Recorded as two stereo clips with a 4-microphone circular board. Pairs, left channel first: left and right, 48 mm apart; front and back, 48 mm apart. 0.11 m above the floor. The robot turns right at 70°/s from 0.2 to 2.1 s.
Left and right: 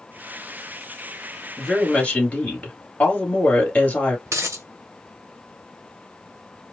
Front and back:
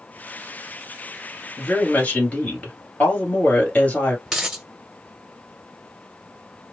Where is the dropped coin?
95° right, 0.8 m.